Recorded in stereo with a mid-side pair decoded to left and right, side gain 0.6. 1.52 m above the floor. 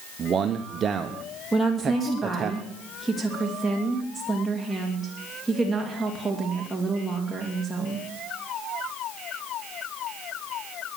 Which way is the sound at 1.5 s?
5° right.